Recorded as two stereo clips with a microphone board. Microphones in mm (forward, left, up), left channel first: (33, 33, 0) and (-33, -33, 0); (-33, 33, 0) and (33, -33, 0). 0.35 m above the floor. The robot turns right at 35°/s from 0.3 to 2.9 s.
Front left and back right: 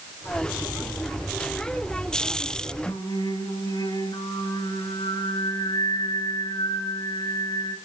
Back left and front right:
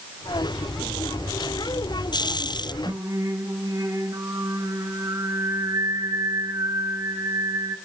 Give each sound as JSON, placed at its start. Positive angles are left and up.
{"t": 2.9, "sound": "singing", "azimuth_deg": 5, "distance_m": 4.5}